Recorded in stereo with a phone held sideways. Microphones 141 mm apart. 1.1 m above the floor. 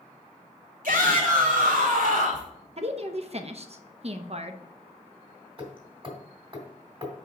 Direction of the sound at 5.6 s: 40° right (ahead or behind).